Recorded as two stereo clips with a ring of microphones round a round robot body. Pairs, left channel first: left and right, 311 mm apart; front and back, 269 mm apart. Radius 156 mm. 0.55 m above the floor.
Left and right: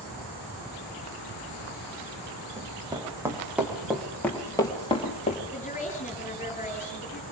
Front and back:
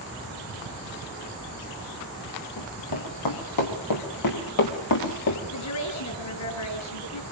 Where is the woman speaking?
20° left, 8.5 m.